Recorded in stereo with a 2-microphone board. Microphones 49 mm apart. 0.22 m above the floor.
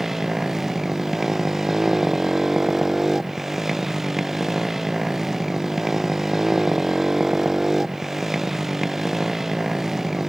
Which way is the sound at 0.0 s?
5° right (ahead or behind).